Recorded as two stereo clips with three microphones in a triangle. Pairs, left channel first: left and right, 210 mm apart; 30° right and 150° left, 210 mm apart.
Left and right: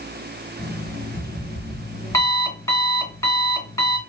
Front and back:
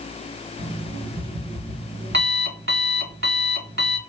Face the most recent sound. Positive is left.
turn(degrees=165)